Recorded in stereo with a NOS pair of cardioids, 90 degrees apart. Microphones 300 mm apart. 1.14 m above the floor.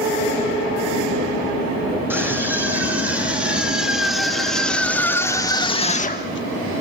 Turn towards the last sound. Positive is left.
turn(degrees=50)